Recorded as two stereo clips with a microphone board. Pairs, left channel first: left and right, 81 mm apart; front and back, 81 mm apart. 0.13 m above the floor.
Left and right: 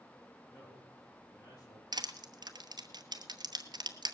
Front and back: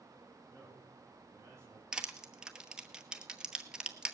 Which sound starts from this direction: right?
Crushing, at 1.9 s.